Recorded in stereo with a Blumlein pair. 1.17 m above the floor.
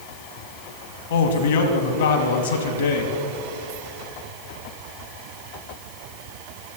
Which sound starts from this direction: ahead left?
A man speaking, at 1.1 s.